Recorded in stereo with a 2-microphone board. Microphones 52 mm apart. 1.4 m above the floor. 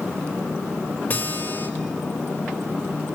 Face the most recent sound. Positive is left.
turn(degrees=35)  # may be behind; listen again after turning